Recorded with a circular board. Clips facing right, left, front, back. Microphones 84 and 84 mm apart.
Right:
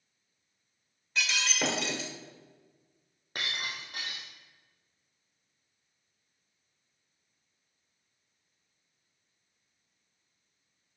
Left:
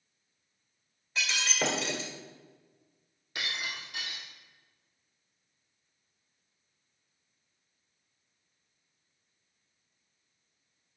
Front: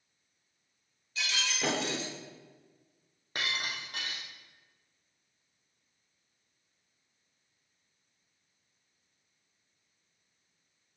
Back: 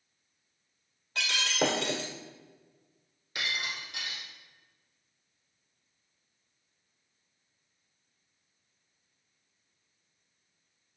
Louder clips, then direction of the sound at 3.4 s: Even, even; 45° right.